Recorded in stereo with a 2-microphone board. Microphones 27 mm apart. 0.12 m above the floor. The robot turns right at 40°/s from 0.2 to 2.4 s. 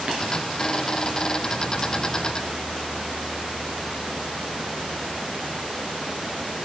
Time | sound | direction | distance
0.1 | tapping | 40° right (ahead or behind) | 1.8 m